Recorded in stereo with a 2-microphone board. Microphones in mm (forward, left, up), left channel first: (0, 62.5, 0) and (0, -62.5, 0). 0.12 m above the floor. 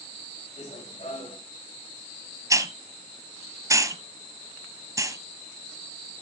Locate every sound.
0.6 s running footsteps: 70° left (ahead or behind), 6.5 m
2.5 s a hiss: 25° right (ahead or behind), 1.1 m